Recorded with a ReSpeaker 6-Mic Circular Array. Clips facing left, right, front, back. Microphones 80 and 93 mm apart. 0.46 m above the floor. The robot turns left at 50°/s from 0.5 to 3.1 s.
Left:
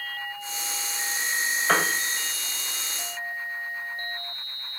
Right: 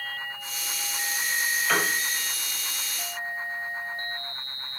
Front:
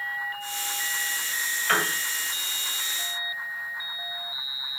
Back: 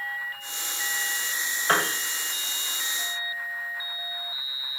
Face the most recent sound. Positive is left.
turn(degrees=60)